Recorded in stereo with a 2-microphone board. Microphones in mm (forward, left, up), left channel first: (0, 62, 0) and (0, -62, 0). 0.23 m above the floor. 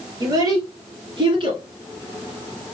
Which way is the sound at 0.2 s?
30° right (ahead or behind).